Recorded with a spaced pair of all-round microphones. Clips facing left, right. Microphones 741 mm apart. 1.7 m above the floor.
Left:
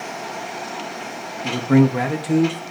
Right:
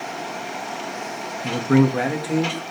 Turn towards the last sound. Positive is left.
turn(degrees=55)  # may be behind; listen again after turning